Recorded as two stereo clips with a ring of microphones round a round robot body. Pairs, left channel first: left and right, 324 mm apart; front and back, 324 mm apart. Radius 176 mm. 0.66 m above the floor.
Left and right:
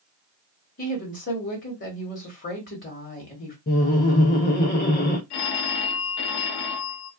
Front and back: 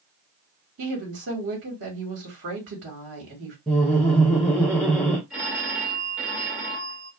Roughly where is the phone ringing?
Left.